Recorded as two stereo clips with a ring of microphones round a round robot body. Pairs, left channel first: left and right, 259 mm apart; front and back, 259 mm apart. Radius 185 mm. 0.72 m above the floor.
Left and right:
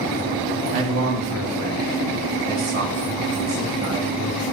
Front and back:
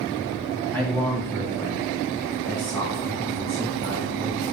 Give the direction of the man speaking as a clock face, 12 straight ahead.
3 o'clock.